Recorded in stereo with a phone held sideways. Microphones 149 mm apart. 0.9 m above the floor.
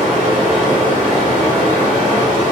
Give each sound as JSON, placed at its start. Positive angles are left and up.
{"t": 0.0, "sound": "running water", "side_deg": -55, "distance_m": 1.4}